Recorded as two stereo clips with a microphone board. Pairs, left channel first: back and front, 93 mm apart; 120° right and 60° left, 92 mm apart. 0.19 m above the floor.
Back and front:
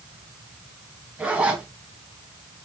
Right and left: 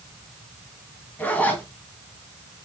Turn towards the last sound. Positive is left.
turn(degrees=-65)